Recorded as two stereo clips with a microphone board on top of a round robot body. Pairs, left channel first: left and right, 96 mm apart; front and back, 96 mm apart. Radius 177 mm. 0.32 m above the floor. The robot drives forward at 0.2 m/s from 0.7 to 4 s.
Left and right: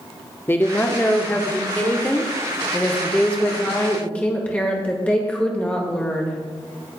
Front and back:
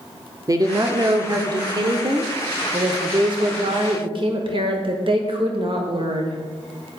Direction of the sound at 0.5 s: 145° left.